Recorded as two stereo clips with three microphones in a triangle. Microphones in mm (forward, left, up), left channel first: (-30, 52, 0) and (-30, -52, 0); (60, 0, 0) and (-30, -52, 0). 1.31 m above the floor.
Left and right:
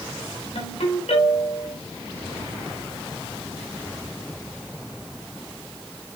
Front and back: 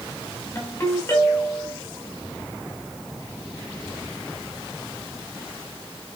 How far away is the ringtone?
About 7.5 m.